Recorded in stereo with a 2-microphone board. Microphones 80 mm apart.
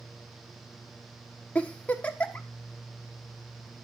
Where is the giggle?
15° left (ahead or behind), 1.3 m.